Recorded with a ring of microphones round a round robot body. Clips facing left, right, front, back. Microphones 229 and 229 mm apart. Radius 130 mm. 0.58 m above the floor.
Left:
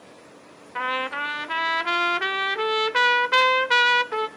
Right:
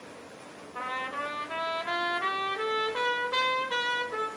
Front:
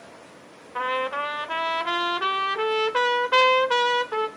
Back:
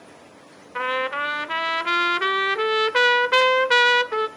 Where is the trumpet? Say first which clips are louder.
Left 8 dB, back 1 dB; 120° left, 0.9 m.